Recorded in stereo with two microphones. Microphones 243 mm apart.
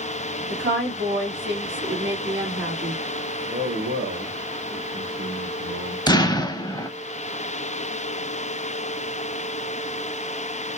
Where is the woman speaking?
50° right (ahead or behind), 2 m.